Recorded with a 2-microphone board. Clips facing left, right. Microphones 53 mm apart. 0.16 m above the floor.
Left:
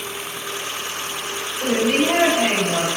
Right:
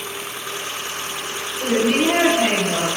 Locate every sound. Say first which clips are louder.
1.6 s a woman speaking: right 1 dB; 20° right (ahead or behind), 1.8 m